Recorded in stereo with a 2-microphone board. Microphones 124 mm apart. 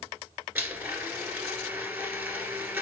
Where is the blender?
20° right (ahead or behind), 1.8 m.